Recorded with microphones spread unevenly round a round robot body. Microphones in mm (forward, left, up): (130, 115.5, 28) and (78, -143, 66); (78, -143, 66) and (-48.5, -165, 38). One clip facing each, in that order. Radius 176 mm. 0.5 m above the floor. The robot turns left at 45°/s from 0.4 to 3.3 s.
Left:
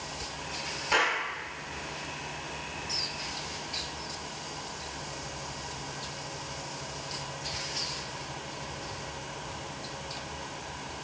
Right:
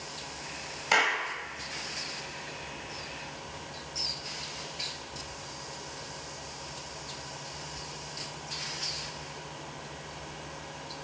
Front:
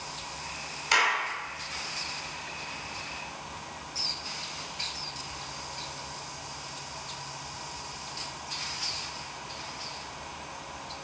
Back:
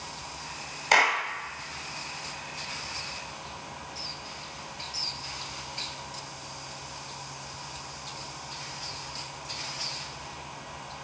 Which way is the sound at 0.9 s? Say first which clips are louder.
Left 1 dB, back 4 dB; 145° right.